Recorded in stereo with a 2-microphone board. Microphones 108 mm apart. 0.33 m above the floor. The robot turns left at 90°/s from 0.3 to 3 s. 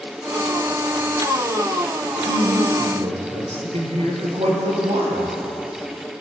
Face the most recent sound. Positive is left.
turn(degrees=-110)